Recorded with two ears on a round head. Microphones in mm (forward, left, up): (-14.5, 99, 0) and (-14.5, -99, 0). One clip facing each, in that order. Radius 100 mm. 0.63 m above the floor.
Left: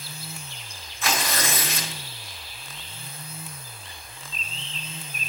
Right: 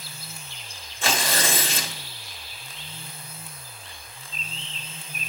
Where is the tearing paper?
25° right (ahead or behind), 1.1 m.